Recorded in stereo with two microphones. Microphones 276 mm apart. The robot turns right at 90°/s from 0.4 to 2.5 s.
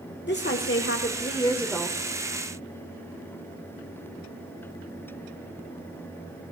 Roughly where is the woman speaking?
Ahead left.